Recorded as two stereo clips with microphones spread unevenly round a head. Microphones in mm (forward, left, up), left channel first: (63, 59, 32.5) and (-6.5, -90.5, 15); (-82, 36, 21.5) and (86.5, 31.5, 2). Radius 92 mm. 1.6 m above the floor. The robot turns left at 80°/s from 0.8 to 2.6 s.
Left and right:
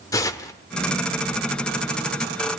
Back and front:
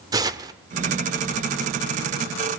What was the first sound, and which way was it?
Tearing paper, 50° left.